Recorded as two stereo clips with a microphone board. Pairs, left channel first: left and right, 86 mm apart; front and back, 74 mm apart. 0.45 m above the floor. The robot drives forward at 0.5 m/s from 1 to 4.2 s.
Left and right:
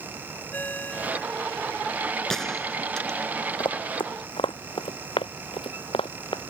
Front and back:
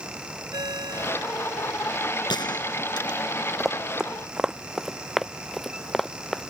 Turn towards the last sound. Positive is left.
turn(degrees=85)